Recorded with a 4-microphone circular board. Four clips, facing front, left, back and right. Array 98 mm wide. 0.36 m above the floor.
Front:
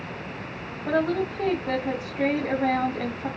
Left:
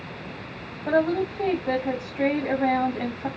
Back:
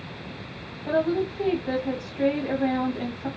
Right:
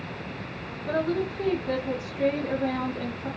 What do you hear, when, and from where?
0.9 s a woman speaking: 70° left, 2 m